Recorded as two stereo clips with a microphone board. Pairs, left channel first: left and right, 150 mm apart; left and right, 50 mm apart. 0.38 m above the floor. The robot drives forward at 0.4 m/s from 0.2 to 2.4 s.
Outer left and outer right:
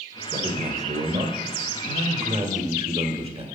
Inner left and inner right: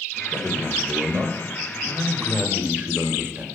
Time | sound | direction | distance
0.3 | a man speaking | 35° right (ahead or behind) | 1.3 m